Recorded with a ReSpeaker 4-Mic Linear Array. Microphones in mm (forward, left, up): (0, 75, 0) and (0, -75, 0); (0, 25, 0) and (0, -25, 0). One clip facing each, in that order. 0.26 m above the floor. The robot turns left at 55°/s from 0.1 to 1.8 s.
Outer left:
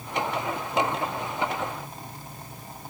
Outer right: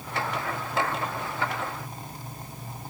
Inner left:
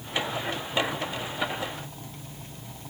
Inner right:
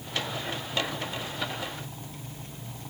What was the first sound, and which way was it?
Only background noise.